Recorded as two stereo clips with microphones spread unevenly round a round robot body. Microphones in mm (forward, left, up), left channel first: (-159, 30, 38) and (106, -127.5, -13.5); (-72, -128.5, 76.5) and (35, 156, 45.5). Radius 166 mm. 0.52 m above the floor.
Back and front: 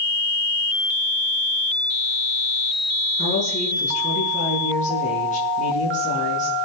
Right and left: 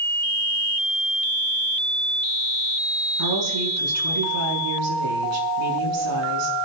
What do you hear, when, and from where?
3.2 s a woman speaking: 80° left, 6.5 m